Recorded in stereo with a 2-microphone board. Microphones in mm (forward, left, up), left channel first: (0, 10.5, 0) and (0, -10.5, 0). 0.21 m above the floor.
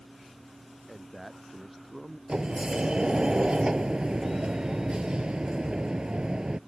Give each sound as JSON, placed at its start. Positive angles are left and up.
{"t": 0.9, "sound": "a man speaking", "side_deg": -5}
{"t": 2.3, "sound": "a sliding door", "side_deg": -40}